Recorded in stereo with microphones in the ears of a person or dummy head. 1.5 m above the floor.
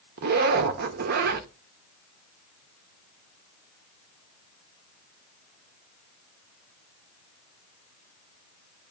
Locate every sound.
0.2 s a zipper: 50° right (ahead or behind), 0.7 m